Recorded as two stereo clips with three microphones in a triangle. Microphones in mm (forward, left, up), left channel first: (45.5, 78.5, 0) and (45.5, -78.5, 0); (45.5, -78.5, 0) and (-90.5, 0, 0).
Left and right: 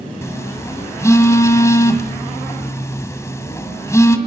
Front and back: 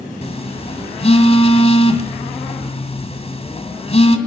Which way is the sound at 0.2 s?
15° left.